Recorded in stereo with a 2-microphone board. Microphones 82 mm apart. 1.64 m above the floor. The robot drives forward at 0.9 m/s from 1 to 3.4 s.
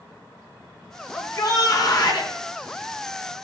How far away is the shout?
About 3.5 m.